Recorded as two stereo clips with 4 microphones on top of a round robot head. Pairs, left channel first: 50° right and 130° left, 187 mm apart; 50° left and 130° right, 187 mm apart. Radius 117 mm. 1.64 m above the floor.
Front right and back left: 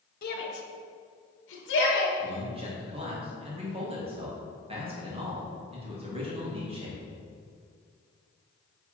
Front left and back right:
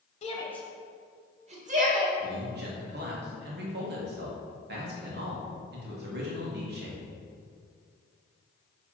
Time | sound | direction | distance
0.2 | a shout | 5° right | 0.9 m
2.2 | a man speaking | 170° right | 1.7 m